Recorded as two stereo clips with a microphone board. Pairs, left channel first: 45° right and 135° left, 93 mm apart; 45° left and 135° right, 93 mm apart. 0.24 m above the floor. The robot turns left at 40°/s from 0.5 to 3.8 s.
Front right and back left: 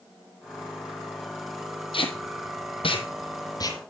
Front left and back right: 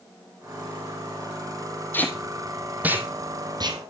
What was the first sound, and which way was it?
Tape being pulled, 25° right.